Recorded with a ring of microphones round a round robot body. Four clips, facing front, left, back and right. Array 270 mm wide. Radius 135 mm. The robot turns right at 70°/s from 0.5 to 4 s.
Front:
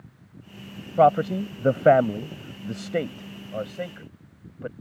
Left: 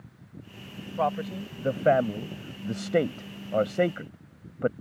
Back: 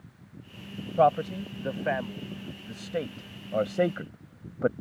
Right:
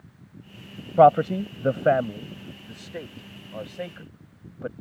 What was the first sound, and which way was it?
A man speaking, 70° right.